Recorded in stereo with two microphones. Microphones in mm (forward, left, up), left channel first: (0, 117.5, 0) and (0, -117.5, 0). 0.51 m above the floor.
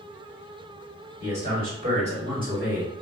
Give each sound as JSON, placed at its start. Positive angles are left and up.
{"t": 1.2, "sound": "a man speaking", "side_deg": -45, "distance_m": 1.7}